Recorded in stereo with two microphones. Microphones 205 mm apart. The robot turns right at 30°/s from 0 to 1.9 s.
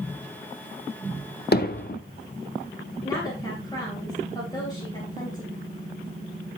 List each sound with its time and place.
1.5 s hammering: 50° left (ahead or behind), 0.9 m; by 2.0 s 45° left (ahead or behind), 0.9 m
3.0 s a woman speaking: 20° left (ahead or behind), 3 m